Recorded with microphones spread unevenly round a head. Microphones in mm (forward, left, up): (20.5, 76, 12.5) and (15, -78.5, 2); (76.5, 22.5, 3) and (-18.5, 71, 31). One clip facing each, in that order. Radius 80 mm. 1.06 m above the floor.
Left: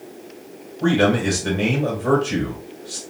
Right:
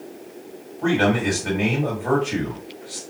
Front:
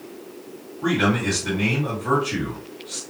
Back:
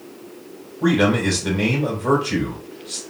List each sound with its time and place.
0.8 s a man speaking: 140° left, 2.5 m